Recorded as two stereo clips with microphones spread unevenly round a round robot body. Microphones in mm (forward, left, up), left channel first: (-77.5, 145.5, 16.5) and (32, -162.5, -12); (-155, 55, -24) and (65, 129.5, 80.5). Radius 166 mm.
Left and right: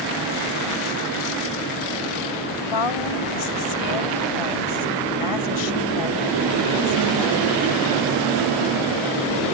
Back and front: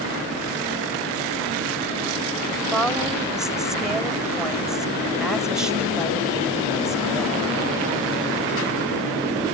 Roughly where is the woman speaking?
Left.